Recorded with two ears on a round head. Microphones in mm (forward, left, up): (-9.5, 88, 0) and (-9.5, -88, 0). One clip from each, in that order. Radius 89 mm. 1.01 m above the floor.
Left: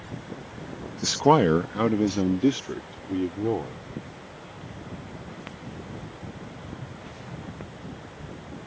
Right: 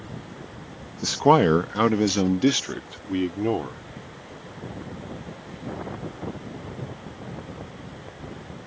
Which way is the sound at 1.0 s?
10° left (ahead or behind).